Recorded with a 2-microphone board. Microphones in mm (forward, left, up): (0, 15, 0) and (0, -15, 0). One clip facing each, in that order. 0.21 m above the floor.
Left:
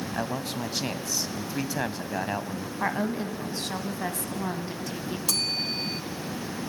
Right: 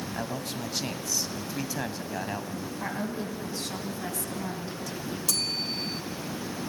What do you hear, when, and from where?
0.1 s a man speaking: 20° left (ahead or behind), 1.0 m
2.8 s a woman speaking: 35° left (ahead or behind), 1.5 m
5.3 s a bell: 15° left (ahead or behind), 1.0 m